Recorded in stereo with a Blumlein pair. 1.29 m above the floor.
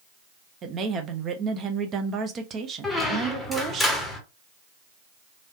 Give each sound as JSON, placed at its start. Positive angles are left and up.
{"t": 0.6, "sound": "a woman speaking", "azimuth_deg": -25, "distance_m": 0.7}
{"t": 2.8, "sound": "a squeak", "azimuth_deg": 5, "distance_m": 1.0}